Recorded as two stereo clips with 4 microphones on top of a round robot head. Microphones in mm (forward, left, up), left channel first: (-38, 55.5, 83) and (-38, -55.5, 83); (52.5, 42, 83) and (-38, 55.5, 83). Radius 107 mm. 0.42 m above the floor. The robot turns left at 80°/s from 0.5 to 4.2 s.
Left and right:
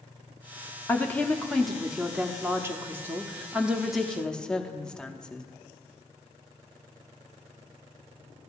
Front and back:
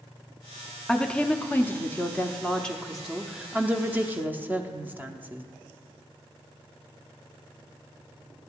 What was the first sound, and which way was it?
A woman speaking, 65° left.